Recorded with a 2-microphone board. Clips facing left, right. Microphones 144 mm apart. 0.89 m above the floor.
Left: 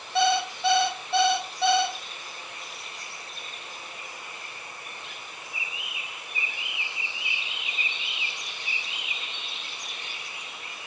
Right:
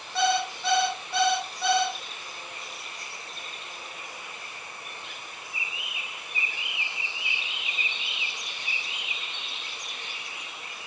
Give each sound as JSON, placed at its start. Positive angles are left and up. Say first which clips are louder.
{"t": 0.1, "sound": "an alarm clock", "louder": "left 2 dB", "side_deg": 25, "distance_m": 2.5}